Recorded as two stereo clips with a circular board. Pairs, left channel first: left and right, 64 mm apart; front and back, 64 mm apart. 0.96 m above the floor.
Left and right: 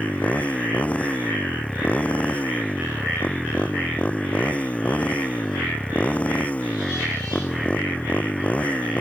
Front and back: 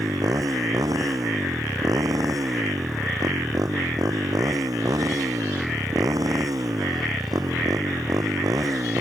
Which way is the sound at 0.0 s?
160° left.